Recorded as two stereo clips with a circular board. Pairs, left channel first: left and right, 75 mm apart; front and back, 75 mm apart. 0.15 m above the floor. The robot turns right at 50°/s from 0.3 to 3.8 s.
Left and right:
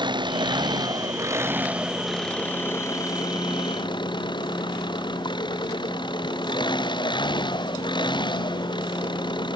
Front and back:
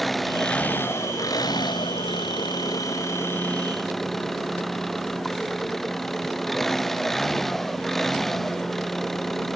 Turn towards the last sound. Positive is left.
turn(degrees=85)